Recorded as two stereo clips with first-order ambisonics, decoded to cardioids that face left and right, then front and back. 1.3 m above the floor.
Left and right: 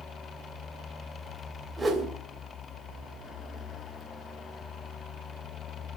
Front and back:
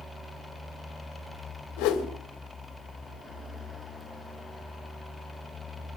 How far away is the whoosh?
About 2.5 m.